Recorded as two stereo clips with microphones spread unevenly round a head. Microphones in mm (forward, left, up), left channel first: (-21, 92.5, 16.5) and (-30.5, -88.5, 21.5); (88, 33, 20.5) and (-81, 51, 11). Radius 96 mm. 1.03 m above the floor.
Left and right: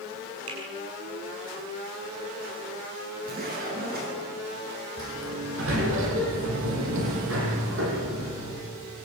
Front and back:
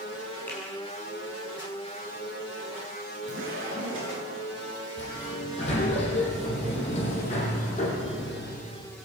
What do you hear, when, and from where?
0.5 s a finger snap: 90° right, 8 m
3.2 s a zipper: 130° right, 10 m
5.0 s a sliding door: 65° right, 7 m